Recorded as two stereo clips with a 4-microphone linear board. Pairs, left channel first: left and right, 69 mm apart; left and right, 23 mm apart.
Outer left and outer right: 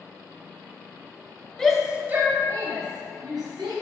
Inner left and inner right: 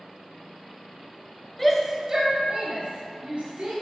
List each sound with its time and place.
1.6 s a shout: 10° left (ahead or behind), 1.2 m; by 3.7 s 70° right (ahead or behind), 3 m